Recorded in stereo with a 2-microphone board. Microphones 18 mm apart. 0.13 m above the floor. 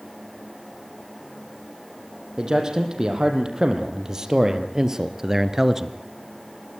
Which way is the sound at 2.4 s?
35° right (ahead or behind).